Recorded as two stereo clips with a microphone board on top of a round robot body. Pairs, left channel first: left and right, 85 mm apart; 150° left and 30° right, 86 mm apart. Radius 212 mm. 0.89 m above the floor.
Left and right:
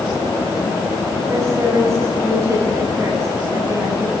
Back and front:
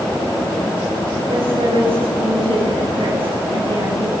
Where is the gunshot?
No gunshot in this recording.